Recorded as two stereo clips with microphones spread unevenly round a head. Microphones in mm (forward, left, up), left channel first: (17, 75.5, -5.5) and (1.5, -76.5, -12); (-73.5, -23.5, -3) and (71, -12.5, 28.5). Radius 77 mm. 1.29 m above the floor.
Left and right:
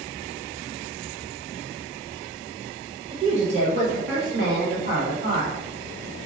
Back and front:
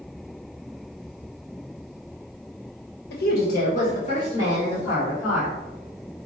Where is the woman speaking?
160° right, 1.0 m; by 5.6 s 110° right, 2.0 m.